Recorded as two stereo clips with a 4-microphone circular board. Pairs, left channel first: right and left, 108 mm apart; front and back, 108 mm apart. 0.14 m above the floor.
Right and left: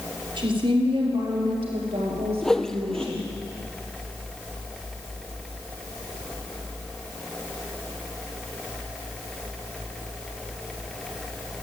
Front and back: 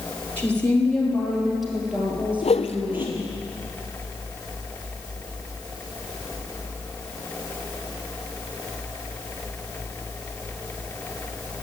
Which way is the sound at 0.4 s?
70° left.